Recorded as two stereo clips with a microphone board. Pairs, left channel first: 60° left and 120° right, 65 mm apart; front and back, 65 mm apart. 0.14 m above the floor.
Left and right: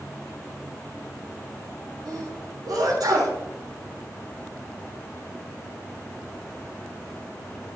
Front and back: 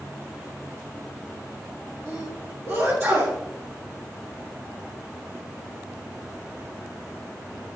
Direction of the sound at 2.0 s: 115° right.